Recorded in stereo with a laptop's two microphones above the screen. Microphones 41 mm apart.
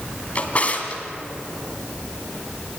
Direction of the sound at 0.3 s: 35° left (ahead or behind).